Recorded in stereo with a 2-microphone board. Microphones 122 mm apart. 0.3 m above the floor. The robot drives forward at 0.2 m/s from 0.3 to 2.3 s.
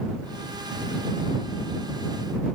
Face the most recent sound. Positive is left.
No sound to turn to.